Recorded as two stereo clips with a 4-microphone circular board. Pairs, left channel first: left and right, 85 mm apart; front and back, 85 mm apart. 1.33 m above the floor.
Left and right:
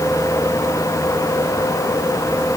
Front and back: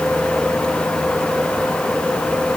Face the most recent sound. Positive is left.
No sound to turn to.